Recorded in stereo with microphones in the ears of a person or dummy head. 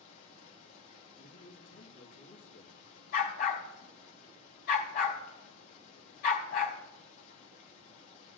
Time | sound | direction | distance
0.0 | running water | 45° left (ahead or behind) | 3 m
1.2 | a man speaking | 70° left (ahead or behind) | 1.7 m
3.1 | a dog barking | 60° left (ahead or behind) | 2.5 m